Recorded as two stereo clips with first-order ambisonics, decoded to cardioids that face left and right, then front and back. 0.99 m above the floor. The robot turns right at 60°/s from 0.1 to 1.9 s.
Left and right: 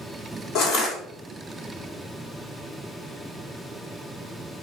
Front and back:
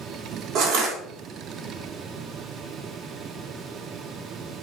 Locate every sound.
0.6 s crushing: 135° left, 1.3 m; by 1.0 s 160° left, 1.3 m